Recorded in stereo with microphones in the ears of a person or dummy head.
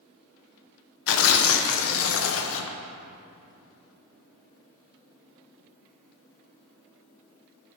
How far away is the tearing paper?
About 0.7 m.